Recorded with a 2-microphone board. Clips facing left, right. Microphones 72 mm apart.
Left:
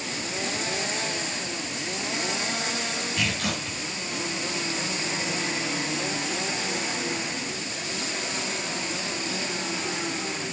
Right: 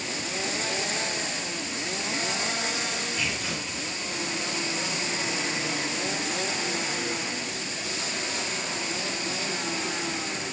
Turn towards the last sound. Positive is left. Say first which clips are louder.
# left 3 dB
turn(degrees=70)  # may be behind; listen again after turning